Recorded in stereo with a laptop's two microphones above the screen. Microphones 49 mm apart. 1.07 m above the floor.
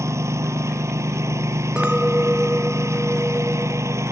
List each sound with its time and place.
0.0 s a lawn mower: 80° right
1.8 s a clink: 20° right (ahead or behind)